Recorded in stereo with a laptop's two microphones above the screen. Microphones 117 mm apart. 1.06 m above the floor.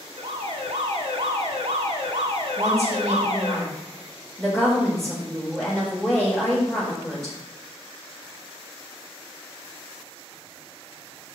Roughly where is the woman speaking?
Centre.